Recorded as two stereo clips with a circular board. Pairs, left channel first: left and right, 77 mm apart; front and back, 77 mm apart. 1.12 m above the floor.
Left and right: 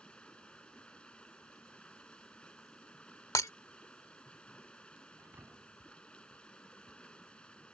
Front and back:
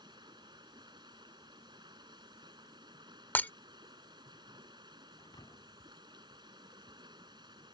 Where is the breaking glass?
60° left.